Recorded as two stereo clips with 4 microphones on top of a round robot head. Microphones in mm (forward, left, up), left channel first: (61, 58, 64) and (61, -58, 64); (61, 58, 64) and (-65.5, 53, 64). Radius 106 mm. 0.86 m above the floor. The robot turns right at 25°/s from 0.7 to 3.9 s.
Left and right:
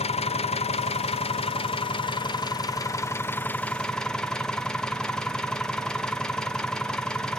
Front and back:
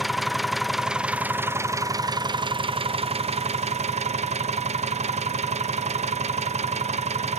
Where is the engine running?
95° left, 0.7 m; by 7.4 s 175° left, 0.7 m.